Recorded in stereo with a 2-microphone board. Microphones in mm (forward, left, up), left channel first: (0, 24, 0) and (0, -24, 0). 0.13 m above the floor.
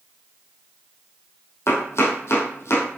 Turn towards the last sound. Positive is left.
turn(degrees=75)  # may be behind; listen again after turning